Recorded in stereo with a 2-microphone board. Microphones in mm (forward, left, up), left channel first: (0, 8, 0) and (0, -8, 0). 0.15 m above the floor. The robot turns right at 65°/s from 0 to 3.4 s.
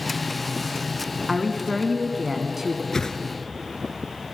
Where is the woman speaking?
15° left (ahead or behind), 1.2 m; by 2.8 s 20° right (ahead or behind), 1.2 m.